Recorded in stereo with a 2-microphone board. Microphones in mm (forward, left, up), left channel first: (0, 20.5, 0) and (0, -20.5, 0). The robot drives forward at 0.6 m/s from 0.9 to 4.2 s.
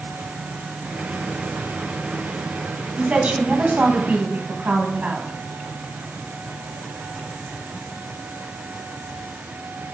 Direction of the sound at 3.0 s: 35° right (ahead or behind).